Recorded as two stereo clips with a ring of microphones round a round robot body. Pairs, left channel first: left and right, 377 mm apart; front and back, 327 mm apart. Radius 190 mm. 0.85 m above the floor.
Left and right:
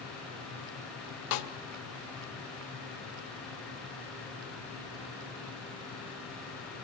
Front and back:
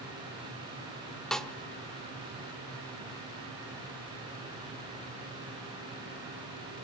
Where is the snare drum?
90° left, 1.5 m.